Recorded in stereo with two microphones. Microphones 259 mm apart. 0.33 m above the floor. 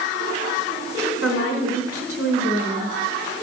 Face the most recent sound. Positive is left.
turn(degrees=60)  # may be behind; listen again after turning